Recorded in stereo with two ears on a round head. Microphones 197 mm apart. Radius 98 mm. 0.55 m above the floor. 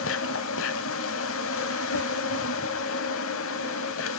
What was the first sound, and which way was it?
An insect, 65° left (ahead or behind).